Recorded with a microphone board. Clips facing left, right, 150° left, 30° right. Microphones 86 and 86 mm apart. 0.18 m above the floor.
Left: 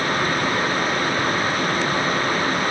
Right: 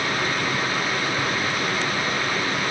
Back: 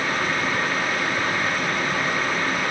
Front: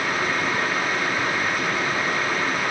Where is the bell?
I don't hear a bell.